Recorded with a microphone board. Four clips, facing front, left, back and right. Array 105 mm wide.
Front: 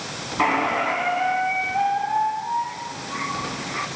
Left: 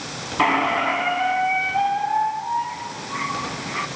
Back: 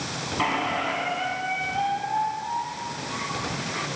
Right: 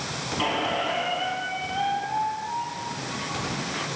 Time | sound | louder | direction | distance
0.4 | a squeak | left 7 dB, front 5 dB | 65° left | 1.5 m